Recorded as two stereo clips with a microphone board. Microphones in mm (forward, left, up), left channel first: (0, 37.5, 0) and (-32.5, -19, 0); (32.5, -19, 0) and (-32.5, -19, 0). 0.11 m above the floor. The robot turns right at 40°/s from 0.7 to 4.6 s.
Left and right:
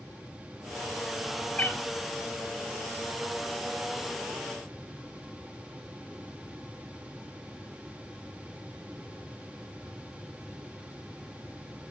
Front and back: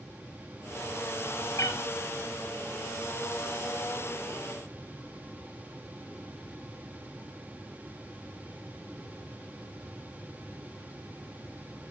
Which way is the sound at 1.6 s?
10° right.